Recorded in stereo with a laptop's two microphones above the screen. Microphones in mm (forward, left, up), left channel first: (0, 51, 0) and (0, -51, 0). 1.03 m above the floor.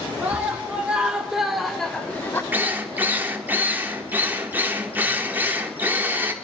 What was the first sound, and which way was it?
A scream, 15° right (ahead or behind).